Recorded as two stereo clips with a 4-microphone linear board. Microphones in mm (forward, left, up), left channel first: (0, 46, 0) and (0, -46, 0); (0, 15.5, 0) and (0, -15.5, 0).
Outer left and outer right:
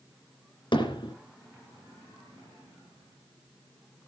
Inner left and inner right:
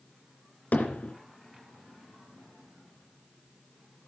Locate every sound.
0.7 s hammering: 60° left (ahead or behind), 3 m